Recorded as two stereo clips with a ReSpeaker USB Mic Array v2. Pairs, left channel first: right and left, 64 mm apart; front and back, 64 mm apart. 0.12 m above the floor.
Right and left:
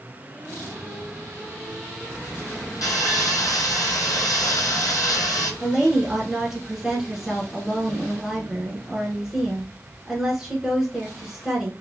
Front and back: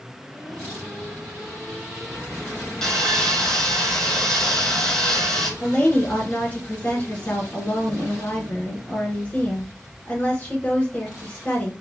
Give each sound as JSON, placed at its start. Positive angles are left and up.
{"t": 2.8, "sound": "sawing", "azimuth_deg": -80, "distance_m": 1.0}
{"t": 5.6, "sound": "a woman speaking", "azimuth_deg": 20, "distance_m": 1.4}